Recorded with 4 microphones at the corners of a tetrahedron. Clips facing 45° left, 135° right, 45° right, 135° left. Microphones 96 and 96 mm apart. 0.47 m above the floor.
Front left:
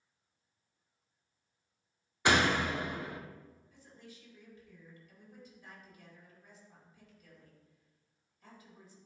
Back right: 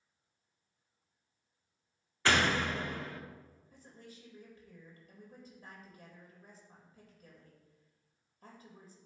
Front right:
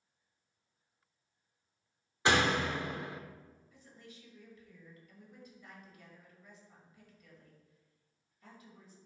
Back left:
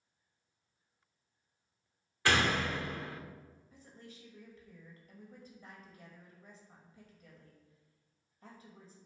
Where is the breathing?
No breathing in this recording.